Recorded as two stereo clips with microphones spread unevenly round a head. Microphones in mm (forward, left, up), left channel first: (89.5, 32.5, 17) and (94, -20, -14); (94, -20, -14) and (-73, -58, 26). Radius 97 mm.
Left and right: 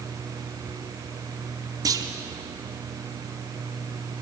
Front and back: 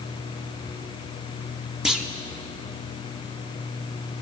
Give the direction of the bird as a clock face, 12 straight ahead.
I don't hear a bird.